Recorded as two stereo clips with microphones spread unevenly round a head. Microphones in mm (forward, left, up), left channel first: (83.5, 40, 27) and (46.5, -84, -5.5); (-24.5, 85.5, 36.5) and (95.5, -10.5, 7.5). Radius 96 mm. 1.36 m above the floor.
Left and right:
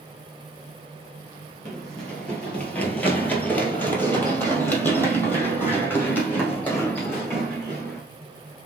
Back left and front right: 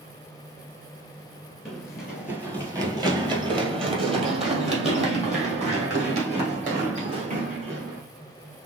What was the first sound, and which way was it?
Running footsteps, 100° left.